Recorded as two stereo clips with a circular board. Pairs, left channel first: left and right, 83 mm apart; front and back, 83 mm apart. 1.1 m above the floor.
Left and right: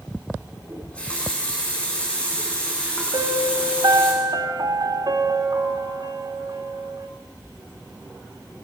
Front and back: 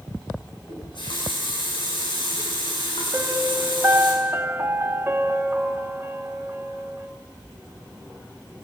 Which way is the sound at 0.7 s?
15° left.